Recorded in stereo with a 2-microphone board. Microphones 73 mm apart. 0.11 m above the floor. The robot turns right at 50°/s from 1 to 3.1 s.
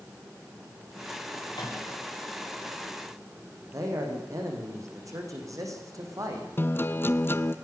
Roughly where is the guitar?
Left.